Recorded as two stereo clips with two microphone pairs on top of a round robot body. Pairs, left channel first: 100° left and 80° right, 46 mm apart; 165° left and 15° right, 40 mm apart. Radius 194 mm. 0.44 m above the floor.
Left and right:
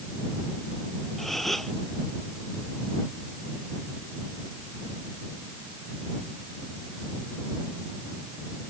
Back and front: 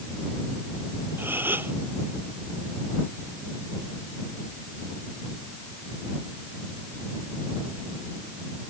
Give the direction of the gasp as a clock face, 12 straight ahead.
11 o'clock.